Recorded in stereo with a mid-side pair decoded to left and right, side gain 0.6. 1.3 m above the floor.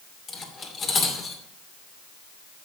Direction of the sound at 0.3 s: 40° left.